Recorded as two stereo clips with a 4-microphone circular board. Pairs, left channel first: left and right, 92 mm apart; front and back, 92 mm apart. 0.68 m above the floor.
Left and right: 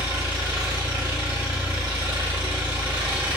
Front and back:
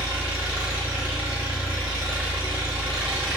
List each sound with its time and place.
0.0 s an engine running: 110° right, 1.8 m